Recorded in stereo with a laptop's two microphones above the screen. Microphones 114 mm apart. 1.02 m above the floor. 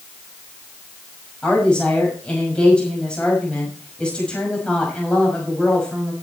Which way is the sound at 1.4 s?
10° left (ahead or behind).